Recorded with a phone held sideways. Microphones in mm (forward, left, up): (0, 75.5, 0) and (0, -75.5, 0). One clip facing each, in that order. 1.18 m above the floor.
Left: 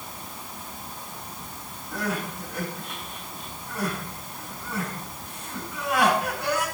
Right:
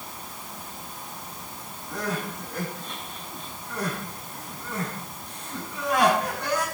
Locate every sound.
1.9 s crying: 5° left (ahead or behind), 7 m